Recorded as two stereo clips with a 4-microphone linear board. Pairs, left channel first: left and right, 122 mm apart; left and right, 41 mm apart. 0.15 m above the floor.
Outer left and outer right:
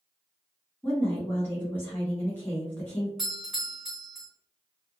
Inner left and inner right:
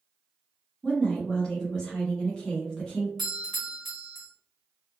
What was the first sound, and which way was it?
A woman speaking, 15° left (ahead or behind).